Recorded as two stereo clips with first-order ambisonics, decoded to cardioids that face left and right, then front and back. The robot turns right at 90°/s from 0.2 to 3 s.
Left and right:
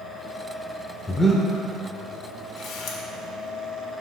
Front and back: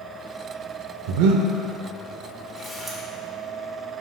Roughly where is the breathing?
Behind.